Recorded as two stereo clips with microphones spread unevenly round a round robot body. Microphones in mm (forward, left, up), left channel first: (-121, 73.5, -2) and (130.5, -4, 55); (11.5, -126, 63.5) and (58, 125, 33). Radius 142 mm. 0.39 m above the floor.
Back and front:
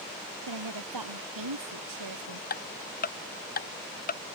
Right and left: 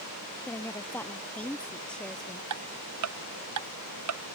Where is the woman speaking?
20° right; by 2.4 s 10° right.